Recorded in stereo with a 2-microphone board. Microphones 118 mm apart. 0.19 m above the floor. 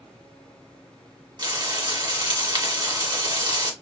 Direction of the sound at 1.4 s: 40° right (ahead or behind).